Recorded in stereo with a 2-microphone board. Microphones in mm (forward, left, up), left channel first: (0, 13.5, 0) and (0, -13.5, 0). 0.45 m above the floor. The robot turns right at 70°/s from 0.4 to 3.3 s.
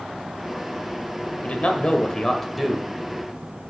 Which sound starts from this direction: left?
A man speaking, at 1.4 s.